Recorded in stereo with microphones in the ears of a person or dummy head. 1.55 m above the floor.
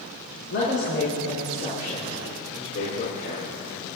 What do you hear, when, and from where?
0.5 s a woman speaking: 60° left (ahead or behind), 5 m; by 3.5 s 55° left (ahead or behind), 6.5 m